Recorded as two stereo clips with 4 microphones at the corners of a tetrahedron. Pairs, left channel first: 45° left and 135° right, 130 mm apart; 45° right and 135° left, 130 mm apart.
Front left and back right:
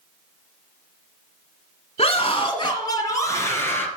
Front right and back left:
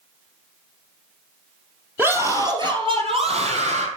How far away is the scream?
About 2.0 m.